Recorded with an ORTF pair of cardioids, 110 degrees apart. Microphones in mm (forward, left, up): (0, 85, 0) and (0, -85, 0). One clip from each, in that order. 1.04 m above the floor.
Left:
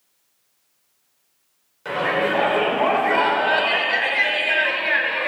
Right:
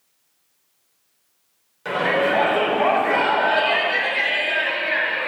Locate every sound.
1.9 s a shout: 10° right, 4 m; by 5.3 s 25° left, 4.5 m